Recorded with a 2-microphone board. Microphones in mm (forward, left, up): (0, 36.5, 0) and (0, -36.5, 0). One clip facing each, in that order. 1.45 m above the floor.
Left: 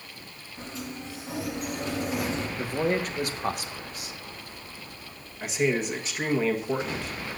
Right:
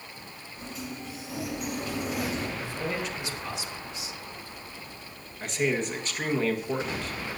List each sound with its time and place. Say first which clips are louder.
0.6 s a sliding door: left 1 dB; 30° left (ahead or behind), 7.5 m
2.6 s a man speaking: left 5 dB; 50° left (ahead or behind), 1.6 m
5.4 s a man speaking: left 2 dB; 5° left (ahead or behind), 1.4 m